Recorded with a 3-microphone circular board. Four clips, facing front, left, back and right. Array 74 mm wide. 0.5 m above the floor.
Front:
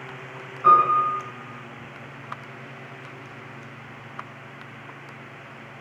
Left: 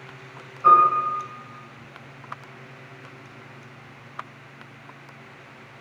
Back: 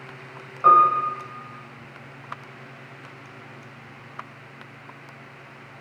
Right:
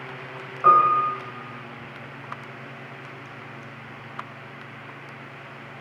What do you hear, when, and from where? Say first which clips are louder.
0.6 s a piano: left 1 dB, back 1 dB; 135° right, 1.6 m